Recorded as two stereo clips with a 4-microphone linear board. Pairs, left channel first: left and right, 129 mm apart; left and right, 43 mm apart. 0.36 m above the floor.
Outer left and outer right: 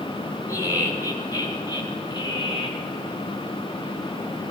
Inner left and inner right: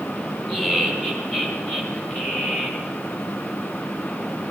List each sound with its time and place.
0.5 s laughter: 25° left (ahead or behind), 4.5 m; by 2.9 s 45° left (ahead or behind), 3.5 m